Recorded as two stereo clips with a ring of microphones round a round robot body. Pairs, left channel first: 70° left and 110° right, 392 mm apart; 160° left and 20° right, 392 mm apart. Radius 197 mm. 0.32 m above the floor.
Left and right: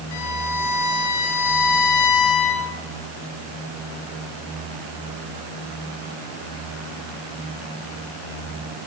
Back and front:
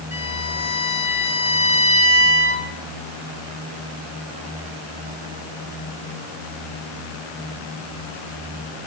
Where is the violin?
60° left, 5 m.